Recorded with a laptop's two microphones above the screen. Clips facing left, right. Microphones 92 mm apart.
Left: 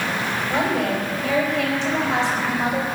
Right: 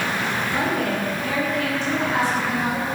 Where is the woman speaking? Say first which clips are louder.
Left 3 dB; 75° left (ahead or behind), 5.5 m; by 2.9 s 85° left, 5 m.